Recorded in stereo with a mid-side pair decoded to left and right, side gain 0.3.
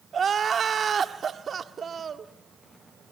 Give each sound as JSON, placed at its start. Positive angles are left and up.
{"t": 0.1, "sound": "crying", "azimuth_deg": -55, "distance_m": 1.4}